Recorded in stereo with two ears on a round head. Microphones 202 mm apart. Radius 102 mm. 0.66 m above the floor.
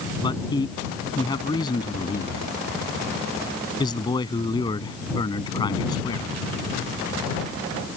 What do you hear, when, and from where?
0.2 s a man speaking: 20° left (ahead or behind)